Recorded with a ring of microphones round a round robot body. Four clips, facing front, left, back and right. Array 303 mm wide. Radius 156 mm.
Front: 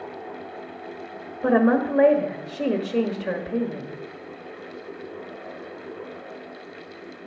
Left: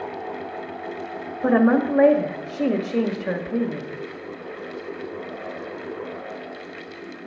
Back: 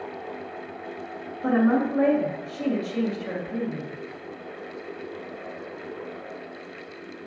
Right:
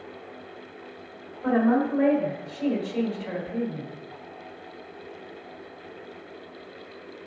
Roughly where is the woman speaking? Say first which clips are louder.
Left 4 dB, front 2 dB; ahead left.